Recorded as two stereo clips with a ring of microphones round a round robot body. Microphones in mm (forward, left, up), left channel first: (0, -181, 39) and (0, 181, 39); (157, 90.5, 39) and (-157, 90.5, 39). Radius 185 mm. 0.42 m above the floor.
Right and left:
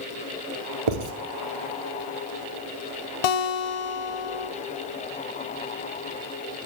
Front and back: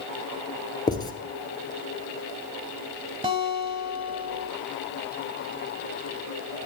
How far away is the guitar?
About 0.9 m.